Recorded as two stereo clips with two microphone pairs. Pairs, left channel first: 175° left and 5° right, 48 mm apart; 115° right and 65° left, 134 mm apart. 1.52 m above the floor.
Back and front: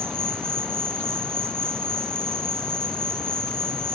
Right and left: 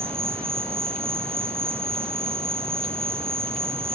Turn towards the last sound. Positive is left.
turn(degrees=25)